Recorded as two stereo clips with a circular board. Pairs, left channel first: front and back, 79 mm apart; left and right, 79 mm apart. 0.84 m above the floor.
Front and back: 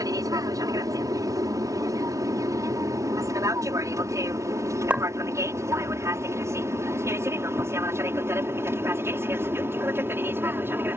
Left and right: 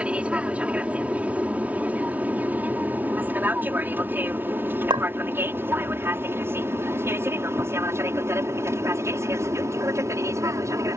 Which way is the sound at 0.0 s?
160° right.